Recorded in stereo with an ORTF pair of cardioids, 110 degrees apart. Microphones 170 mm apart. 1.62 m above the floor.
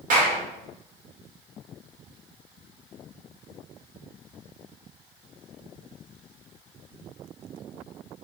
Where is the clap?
55° right, 1.2 m.